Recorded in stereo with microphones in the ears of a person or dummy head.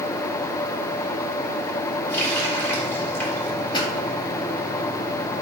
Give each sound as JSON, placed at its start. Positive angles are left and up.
{"t": 2.1, "sound": "a running tap", "side_deg": 10, "distance_m": 3.0}
{"t": 3.7, "sound": "a pop", "side_deg": 25, "distance_m": 1.8}